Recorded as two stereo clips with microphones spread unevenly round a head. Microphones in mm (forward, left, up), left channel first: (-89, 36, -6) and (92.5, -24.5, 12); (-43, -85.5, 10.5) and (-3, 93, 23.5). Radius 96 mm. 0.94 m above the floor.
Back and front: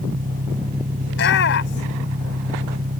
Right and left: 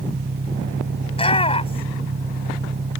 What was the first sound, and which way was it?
An engine running, 30° left.